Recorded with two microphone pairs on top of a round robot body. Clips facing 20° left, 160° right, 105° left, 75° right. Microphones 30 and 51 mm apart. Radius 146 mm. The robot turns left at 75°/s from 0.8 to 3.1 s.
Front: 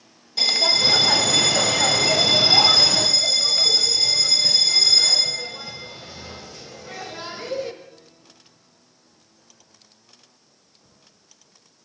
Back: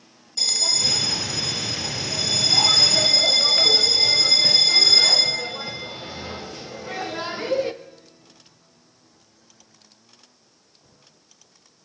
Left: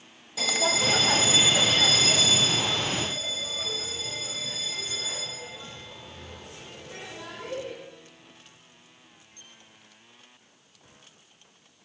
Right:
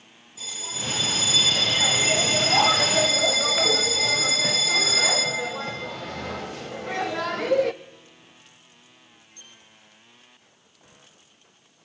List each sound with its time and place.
0.4 s a bell: 85° left, 0.7 m; by 7.7 s 90° right, 0.7 m